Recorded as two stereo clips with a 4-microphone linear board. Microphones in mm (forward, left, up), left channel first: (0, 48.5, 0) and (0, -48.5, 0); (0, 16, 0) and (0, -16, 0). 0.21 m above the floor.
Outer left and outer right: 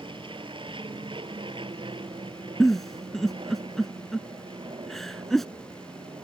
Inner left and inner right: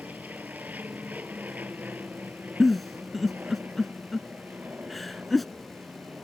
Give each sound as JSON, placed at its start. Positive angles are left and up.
{"t": 0.0, "sound": "an aircraft", "side_deg": -60}
{"t": 2.6, "sound": "a giggle", "side_deg": 0}